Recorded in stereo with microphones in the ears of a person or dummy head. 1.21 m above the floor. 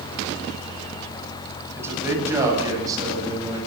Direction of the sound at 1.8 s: 15° right (ahead or behind).